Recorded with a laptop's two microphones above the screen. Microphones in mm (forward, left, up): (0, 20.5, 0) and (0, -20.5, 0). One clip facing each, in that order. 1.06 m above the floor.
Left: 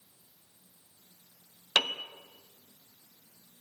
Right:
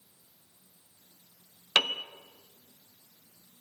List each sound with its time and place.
1.8 s a piano: 20° right (ahead or behind), 1.4 m